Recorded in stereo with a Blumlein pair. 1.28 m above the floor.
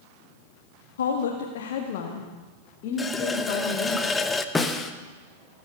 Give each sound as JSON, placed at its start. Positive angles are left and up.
{"t": 1.0, "sound": "a woman speaking", "azimuth_deg": 65, "distance_m": 1.5}
{"t": 3.0, "sound": "a running tap", "azimuth_deg": 10, "distance_m": 0.8}
{"t": 4.5, "sound": "a snare drum", "azimuth_deg": 10, "distance_m": 1.1}